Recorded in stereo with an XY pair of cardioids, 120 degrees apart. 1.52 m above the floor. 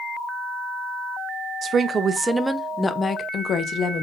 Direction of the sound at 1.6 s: 45° right.